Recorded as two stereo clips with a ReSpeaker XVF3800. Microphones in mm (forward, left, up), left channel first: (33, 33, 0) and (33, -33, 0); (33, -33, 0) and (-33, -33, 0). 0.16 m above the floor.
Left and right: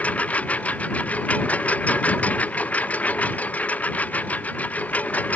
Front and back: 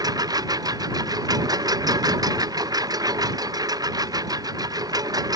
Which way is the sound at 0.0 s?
160° left.